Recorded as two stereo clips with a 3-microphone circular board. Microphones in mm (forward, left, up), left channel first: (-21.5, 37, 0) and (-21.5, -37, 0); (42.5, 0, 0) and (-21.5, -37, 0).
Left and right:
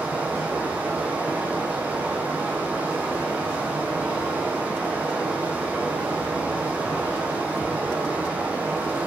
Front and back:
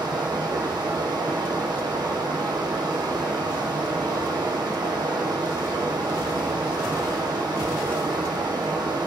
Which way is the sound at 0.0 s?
160° right.